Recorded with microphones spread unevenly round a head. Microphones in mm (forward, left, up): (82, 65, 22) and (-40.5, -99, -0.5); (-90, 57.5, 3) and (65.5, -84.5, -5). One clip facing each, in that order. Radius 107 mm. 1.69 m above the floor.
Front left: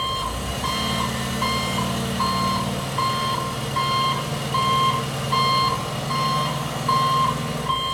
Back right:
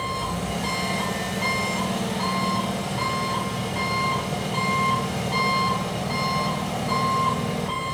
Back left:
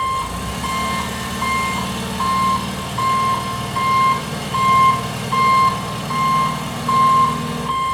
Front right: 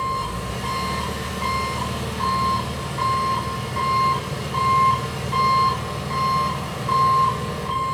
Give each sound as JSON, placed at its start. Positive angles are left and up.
{"t": 0.0, "sound": "an engine running", "azimuth_deg": 130, "distance_m": 2.5}